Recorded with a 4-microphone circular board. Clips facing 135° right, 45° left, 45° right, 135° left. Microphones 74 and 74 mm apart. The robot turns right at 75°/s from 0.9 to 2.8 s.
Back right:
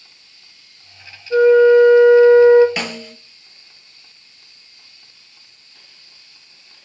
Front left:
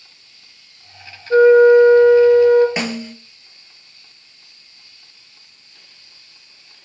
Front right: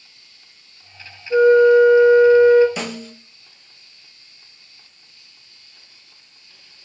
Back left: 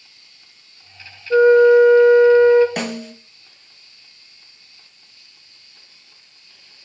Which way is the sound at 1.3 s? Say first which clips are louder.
Front left 1 dB, back left 1 dB; 90° left.